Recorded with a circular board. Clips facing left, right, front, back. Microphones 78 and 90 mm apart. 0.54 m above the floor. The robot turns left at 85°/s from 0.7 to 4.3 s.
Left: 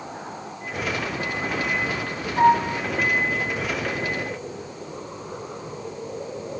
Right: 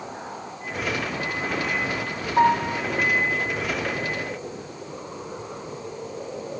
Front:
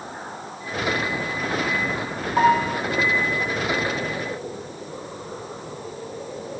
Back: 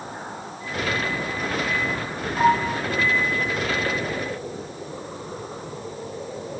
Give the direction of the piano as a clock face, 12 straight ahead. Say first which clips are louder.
Left 2 dB, front 2 dB; 1 o'clock.